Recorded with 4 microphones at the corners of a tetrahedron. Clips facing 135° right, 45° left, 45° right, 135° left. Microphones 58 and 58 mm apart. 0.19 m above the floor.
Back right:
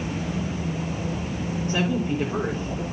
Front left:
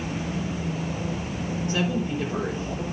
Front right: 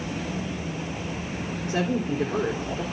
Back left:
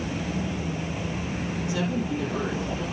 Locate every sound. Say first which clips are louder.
1.7 s a woman speaking: back right 2 dB, front right 3 dB; 85° right, 2.5 m